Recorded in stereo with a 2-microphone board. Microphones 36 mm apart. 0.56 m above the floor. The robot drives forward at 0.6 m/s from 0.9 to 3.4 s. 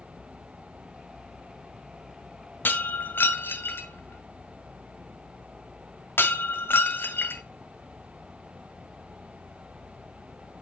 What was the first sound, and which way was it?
Breaking glass, 65° left (ahead or behind).